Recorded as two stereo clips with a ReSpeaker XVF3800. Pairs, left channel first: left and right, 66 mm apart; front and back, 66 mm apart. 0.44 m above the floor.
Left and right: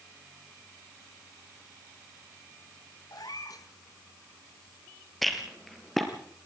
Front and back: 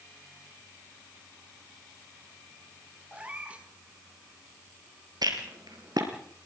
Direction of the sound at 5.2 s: Straight behind.